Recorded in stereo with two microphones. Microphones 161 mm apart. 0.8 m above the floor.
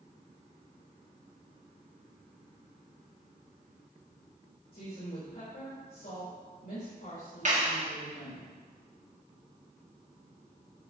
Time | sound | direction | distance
4.7 | a woman speaking | 60° left (ahead or behind) | 3.5 m
7.5 | a clap | 50° right (ahead or behind) | 1.4 m